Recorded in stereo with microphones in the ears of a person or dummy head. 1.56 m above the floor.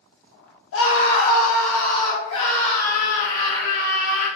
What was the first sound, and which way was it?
A scream, 80° left.